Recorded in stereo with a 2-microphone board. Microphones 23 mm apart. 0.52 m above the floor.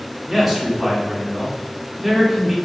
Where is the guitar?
I don't hear a guitar.